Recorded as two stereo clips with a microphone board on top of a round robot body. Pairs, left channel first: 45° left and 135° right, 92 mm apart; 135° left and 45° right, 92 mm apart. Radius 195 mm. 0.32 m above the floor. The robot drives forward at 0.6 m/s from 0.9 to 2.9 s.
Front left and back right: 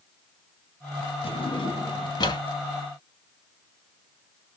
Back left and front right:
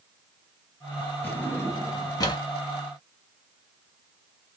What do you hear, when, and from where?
1.2 s a drawer: 60° left, 1.4 m; by 2.4 s 90° left, 1.2 m